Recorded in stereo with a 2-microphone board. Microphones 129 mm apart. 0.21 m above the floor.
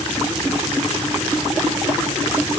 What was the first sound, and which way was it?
Only background noise.